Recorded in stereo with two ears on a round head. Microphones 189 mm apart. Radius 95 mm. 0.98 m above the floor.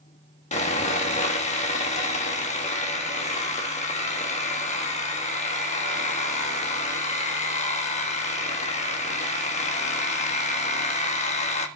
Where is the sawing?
30° left (ahead or behind), 1.8 m.